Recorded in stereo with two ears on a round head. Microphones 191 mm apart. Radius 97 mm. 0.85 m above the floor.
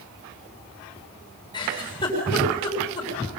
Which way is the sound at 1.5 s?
20° left (ahead or behind).